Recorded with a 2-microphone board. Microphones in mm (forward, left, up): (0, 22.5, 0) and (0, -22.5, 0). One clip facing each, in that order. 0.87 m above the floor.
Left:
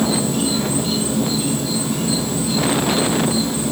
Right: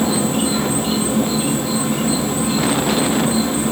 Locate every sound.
0.0 s an insect: 30° right (ahead or behind), 1.4 m